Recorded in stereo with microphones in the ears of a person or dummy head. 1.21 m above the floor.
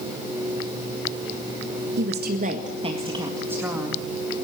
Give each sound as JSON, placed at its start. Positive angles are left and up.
{"t": 2.0, "sound": "a woman speaking", "side_deg": -55, "distance_m": 1.8}